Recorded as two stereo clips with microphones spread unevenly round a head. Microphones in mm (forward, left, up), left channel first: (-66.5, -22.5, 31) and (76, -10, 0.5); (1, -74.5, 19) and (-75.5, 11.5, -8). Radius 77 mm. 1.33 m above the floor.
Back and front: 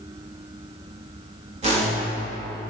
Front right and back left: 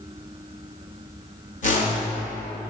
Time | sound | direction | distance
1.6 | a whoosh | 45° right | 1.5 m